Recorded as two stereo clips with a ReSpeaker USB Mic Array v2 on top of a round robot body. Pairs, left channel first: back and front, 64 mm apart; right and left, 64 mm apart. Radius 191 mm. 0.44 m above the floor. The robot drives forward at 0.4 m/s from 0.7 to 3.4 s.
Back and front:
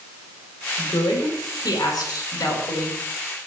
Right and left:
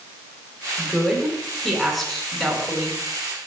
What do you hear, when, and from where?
0.8 s a woman speaking: straight behind, 7.5 m